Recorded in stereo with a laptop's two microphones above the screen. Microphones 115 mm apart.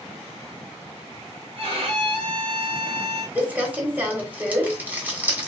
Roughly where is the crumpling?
Centre.